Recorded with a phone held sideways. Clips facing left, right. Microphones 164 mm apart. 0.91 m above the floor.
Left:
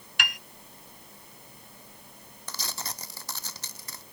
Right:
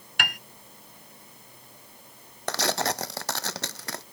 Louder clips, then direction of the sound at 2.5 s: Right 14 dB; 75° right (ahead or behind).